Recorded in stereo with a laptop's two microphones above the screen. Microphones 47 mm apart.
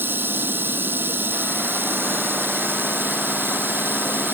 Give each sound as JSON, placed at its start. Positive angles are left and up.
{"t": 0.0, "sound": "running water", "side_deg": -45}